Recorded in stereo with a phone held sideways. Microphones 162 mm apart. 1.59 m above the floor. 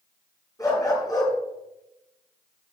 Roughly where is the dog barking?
Left.